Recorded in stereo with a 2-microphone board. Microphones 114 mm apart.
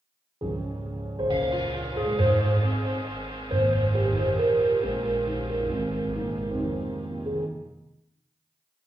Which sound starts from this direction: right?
A piano, at 0.4 s.